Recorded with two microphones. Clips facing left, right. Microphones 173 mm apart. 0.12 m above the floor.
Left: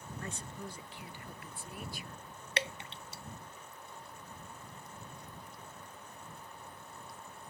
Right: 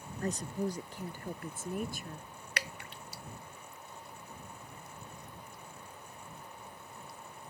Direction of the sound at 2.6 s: 25° left (ahead or behind).